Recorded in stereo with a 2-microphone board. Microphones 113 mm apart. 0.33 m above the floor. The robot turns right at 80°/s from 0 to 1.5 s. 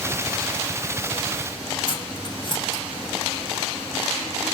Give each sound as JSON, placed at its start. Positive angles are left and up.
{"t": 1.9, "sound": "cutlery clinking", "side_deg": 45, "distance_m": 1.1}